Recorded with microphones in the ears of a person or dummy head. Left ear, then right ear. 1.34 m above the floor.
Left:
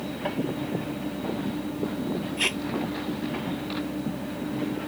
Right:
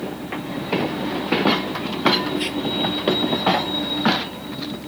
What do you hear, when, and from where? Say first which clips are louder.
2.4 s tape being pulled: right 1 dB; 35° left (ahead or behind)